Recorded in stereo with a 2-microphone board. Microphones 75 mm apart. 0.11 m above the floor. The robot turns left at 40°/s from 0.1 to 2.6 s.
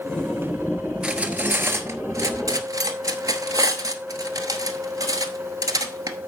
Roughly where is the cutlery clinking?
Centre.